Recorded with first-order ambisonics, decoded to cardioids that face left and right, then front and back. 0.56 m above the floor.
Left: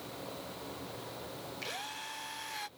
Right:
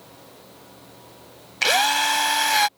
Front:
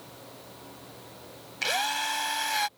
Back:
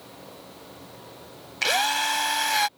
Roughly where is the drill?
Right.